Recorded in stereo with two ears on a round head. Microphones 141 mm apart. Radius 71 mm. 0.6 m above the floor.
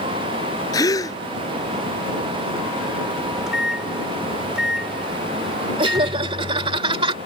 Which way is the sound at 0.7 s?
20° left (ahead or behind).